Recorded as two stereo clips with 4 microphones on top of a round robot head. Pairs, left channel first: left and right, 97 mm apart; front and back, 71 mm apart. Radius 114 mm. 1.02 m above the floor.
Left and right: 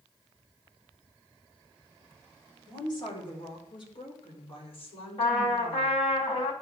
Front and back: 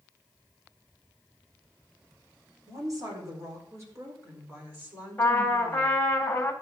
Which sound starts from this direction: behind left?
A woman speaking, at 2.7 s.